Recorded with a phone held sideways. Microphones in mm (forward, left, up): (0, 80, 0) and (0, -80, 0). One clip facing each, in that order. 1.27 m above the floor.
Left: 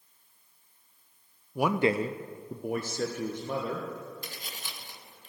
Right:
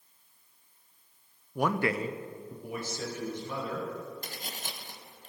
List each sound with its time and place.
1.6 s a man speaking: 5° left (ahead or behind), 0.6 m; by 3.9 s 50° left (ahead or behind), 1.6 m
4.2 s tapping: 45° right (ahead or behind), 0.7 m